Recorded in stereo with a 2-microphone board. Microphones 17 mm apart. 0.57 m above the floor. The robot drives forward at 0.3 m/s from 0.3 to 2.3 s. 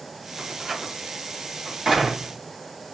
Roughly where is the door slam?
Right.